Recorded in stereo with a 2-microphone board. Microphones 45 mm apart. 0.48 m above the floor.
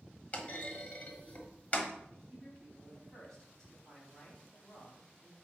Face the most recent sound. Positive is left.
turn(degrees=15)  # may be behind; listen again after turning